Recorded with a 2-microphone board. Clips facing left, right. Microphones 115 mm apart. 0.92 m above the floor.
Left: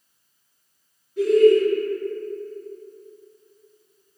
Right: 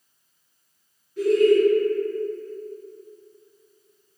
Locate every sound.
1.2 s laughter: 15° left (ahead or behind), 1.5 m